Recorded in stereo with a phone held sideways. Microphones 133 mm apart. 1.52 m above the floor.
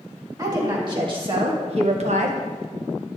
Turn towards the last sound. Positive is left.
turn(degrees=-65)  # may be behind; listen again after turning